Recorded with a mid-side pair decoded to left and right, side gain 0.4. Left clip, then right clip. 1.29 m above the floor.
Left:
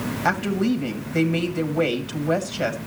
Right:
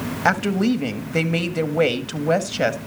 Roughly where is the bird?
I don't hear a bird.